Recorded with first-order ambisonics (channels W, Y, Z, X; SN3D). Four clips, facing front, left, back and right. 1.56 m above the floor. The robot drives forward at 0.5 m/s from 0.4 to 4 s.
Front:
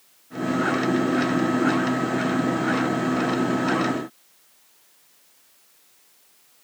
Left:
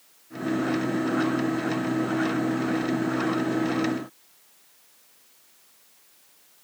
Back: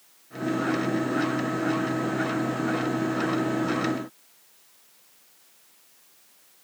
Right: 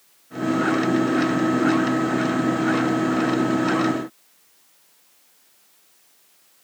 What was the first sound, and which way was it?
Only background noise.